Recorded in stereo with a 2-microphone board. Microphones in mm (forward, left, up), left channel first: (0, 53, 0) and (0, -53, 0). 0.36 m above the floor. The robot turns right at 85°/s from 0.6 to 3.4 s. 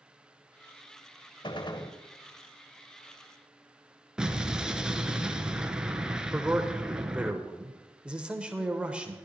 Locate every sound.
1.4 s a gunshot: 90° left, 0.8 m; by 2.0 s 135° left, 0.8 m
4.2 s an explosion: 5° right (ahead or behind), 0.8 m
6.3 s a man speaking: 10° right (ahead or behind), 1.0 m